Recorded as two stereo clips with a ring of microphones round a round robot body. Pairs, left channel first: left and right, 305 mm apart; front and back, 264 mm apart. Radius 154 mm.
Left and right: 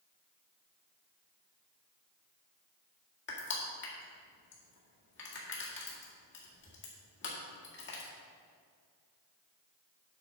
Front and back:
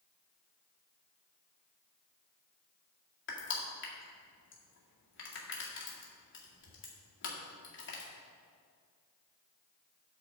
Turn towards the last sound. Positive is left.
turn(degrees=40)